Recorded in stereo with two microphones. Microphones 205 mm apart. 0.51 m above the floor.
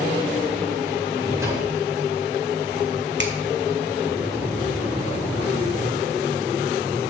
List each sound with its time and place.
1.1 s a drawer: 15° right (ahead or behind), 5.5 m
3.2 s a finger snap: 60° right (ahead or behind), 1.6 m